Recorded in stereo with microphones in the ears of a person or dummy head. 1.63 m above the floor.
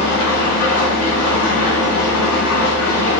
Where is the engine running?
60° left (ahead or behind), 0.7 m.